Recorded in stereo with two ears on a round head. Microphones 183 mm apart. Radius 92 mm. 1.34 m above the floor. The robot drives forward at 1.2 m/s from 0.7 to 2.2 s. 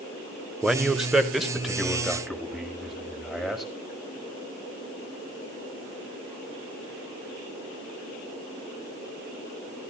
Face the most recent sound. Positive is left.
turn(degrees=0)  # may be behind; listen again after turning